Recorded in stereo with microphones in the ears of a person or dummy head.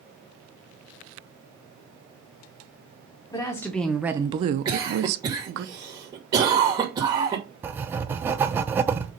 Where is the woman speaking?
20° left (ahead or behind), 0.9 m; by 5.7 s 65° right (ahead or behind), 1.0 m.